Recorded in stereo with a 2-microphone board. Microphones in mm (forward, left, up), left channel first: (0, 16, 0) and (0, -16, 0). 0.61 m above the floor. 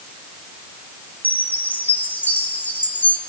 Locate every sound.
1.2 s a chime: 75° left (ahead or behind), 2.5 m